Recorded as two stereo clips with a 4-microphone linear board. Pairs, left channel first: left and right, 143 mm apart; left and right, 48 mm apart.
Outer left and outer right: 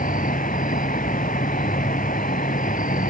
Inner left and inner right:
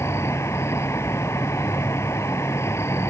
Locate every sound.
0.0 s an insect: 75° left (ahead or behind)